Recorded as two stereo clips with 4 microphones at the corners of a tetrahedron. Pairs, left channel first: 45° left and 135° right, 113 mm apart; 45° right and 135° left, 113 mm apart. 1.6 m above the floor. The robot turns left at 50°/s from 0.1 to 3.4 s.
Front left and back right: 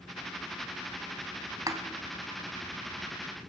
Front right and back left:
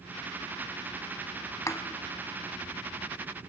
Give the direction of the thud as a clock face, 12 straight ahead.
3 o'clock.